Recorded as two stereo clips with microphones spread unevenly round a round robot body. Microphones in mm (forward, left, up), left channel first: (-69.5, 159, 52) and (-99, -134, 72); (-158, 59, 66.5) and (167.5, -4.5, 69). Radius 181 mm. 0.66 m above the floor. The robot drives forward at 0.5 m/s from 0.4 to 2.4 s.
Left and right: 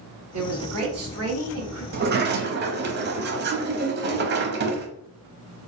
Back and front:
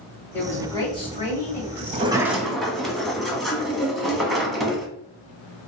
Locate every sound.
0.3 s a woman speaking: 110° right, 1.7 m; by 1.8 s 130° right, 2 m
1.9 s a sliding door: 65° right, 0.7 m; by 4.9 s 105° right, 0.7 m